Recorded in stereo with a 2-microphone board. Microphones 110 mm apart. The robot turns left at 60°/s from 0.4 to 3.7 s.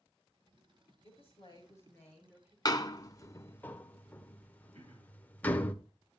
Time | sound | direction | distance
1.0 | a woman speaking | 70° left | 6.5 m
2.6 | a door slam | 35° left (ahead or behind) | 0.7 m
4.7 | throat clearing | 75° right (ahead or behind) | 2.5 m